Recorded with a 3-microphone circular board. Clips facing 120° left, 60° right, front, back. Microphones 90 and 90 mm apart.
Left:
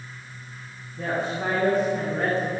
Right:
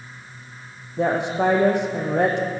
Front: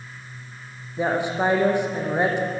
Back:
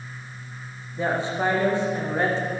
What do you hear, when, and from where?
1.0 s a woman speaking: 75° right, 4.5 m